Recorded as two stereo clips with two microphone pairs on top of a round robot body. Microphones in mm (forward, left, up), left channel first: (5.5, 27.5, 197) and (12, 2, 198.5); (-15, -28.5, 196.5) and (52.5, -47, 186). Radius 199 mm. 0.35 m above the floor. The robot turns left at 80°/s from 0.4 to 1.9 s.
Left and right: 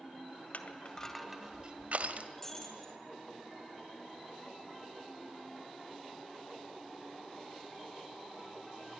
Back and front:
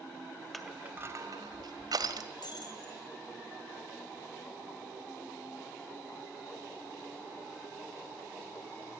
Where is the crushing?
75° left, 2 m; by 2.3 s 35° right, 2 m.